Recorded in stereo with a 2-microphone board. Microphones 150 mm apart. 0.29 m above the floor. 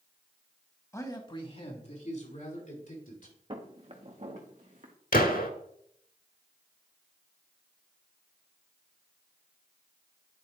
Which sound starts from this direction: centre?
A man speaking, at 0.9 s.